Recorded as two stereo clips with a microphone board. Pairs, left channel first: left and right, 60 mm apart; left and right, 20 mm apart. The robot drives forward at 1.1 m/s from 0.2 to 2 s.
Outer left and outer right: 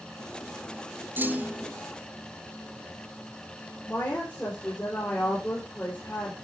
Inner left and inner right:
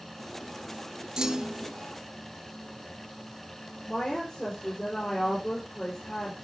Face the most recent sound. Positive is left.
turn(degrees=25)  # may be behind; listen again after turning